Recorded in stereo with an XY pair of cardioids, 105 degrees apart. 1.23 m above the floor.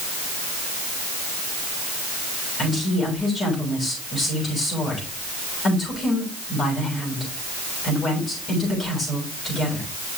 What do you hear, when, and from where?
2.6 s a woman speaking: 35° left, 6.5 m